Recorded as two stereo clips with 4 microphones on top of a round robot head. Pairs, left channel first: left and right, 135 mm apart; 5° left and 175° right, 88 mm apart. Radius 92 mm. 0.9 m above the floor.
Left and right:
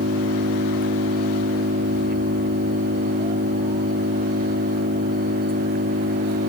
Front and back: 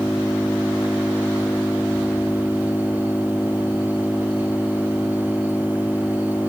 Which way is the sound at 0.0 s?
75° right.